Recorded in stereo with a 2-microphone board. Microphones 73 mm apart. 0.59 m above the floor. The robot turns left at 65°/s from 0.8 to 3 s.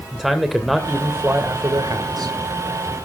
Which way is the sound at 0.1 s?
5° right.